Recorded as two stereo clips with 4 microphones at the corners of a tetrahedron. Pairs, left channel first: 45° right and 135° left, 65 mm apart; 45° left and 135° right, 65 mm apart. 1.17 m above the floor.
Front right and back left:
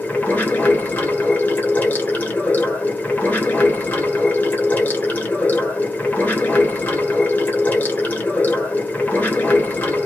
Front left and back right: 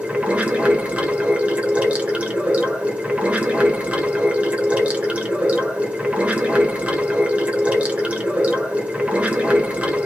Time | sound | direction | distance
0.0 | running water | 85° right | 1.0 m